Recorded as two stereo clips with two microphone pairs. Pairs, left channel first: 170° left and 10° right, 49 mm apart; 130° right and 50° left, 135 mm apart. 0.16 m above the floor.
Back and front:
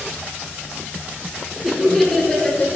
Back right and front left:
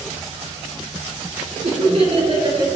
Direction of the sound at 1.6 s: 80° left.